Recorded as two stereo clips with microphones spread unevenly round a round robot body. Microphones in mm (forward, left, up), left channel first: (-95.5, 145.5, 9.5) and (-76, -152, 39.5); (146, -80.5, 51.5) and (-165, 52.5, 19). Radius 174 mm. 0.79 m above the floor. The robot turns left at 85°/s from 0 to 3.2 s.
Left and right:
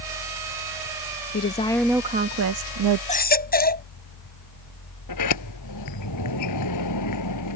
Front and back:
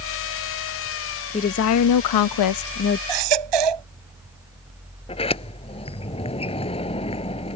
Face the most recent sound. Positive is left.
turn(degrees=50)